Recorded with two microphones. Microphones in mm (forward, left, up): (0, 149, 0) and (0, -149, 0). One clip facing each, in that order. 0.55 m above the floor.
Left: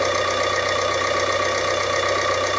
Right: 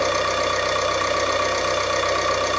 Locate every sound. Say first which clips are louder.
0.0 s an engine running: left 1 dB; 20° left (ahead or behind), 1.0 m